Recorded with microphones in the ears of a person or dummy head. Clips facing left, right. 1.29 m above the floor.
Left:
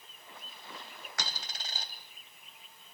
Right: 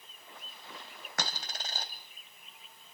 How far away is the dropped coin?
About 2.5 m.